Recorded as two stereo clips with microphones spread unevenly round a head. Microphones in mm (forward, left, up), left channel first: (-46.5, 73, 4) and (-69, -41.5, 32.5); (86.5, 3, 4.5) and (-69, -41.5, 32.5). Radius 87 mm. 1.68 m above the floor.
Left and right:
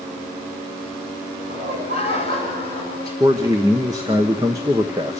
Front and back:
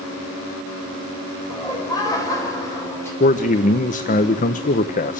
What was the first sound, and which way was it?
Laughter, 50° right.